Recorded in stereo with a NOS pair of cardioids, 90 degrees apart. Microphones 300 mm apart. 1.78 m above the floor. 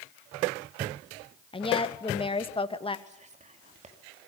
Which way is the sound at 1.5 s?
15° left.